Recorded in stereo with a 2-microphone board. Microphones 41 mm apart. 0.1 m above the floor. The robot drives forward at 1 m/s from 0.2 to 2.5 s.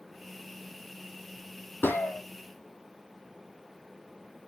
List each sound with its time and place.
1.8 s a gunshot: 70° left (ahead or behind), 1.3 m; by 2.2 s 60° left (ahead or behind), 1.4 m